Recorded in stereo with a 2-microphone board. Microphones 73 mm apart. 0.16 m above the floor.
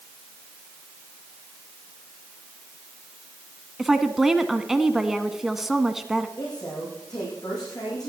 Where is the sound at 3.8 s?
5° right (ahead or behind), 1.1 m.